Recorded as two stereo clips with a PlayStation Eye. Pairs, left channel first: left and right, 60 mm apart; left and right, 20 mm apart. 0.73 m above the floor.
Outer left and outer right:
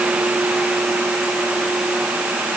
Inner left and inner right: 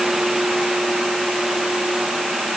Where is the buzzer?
I don't hear a buzzer.